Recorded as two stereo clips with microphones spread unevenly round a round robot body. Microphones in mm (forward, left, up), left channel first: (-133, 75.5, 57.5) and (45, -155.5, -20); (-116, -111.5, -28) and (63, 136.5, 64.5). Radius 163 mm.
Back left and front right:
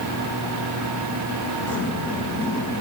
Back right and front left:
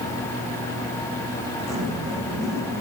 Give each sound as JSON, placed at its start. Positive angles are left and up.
{"t": 1.7, "sound": "a zipper", "azimuth_deg": 85, "distance_m": 6.0}